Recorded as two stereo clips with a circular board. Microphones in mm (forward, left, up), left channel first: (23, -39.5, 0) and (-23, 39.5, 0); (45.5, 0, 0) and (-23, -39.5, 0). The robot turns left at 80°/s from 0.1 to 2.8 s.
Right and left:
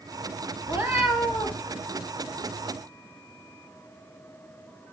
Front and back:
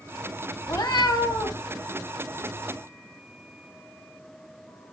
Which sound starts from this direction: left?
A cat meowing, at 0.7 s.